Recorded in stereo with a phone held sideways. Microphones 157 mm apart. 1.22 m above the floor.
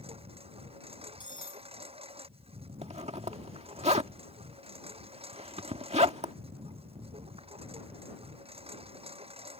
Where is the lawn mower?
40° right (ahead or behind).